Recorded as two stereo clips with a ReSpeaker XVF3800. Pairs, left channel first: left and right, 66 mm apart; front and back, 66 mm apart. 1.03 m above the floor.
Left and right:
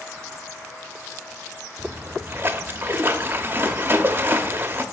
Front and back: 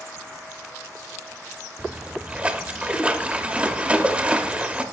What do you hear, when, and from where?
1.8 s a splash: 115° right, 0.6 m